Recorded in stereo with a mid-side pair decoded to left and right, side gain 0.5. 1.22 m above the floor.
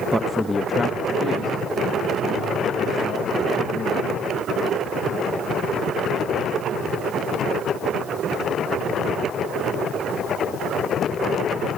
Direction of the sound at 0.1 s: 15° right.